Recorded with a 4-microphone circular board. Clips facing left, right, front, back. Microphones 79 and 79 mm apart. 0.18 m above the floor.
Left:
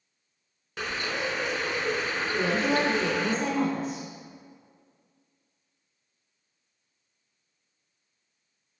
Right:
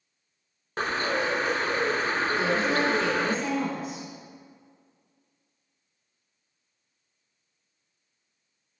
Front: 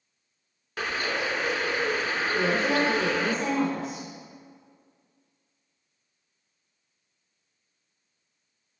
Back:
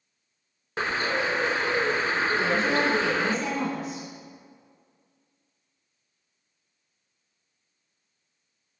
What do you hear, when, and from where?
0.8 s a bird: 130° right, 0.7 m
2.4 s a woman speaking: 45° left, 1.8 m